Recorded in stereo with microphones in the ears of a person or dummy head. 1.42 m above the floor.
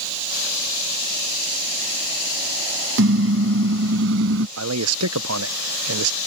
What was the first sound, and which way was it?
A car horn, 75° right (ahead or behind).